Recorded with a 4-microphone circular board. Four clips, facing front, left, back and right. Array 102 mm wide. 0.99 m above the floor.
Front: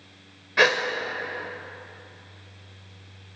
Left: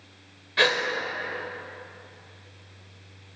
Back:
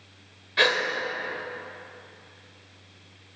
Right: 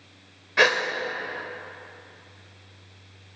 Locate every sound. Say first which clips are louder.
0.6 s a gasp: right 3 dB, front 3 dB; 45° right, 0.7 m